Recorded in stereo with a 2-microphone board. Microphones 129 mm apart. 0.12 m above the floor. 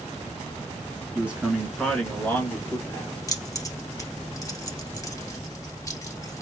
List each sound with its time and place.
1.1 s a man speaking: 15° right (ahead or behind), 1.3 m; by 3.2 s 30° left (ahead or behind), 1.5 m
3.3 s keys jangling: 25° left (ahead or behind), 1.3 m